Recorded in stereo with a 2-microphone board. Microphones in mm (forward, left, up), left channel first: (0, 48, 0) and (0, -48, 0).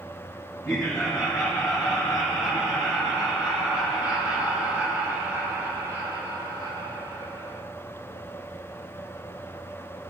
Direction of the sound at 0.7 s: 5° left (ahead or behind).